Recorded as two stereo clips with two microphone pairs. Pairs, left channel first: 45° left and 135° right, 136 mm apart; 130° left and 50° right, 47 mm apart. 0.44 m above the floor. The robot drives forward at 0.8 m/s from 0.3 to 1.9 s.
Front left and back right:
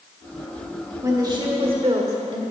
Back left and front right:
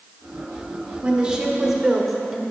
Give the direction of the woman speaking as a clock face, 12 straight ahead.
3 o'clock.